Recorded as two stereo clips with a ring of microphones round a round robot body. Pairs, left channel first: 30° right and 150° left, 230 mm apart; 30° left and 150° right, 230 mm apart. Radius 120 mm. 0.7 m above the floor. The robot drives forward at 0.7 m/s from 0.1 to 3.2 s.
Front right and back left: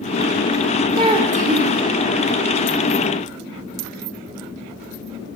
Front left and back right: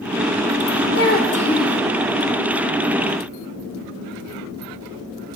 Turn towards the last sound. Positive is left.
turn(degrees=140)